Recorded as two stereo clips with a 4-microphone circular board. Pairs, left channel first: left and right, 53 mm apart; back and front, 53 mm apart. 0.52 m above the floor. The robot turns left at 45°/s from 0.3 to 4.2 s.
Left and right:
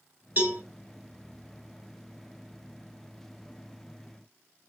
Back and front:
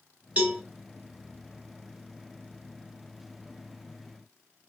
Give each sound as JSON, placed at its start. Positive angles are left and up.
{"t": 0.4, "sound": "a cowbell", "azimuth_deg": -55, "distance_m": 1.3}